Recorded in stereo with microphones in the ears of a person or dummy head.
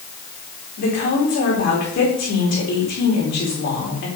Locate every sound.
0.8 s a woman speaking: 55° left (ahead or behind), 3.5 m